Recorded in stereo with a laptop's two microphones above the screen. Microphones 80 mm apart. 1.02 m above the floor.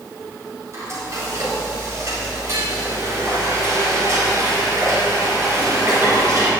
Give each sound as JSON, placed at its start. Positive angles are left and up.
{"t": 0.7, "sound": "frying", "side_deg": -40, "distance_m": 3.5}